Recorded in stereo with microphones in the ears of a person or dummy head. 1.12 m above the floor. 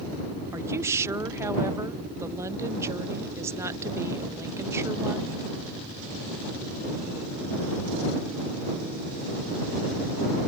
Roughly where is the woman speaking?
Centre.